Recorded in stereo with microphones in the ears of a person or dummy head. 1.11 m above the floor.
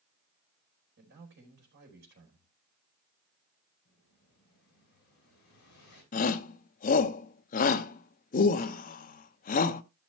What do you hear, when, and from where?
1.0 s a man speaking: 65° right (ahead or behind), 4 m
3.9 s an explosion: 50° left (ahead or behind), 7.5 m
6.1 s a shout: 40° left (ahead or behind), 0.9 m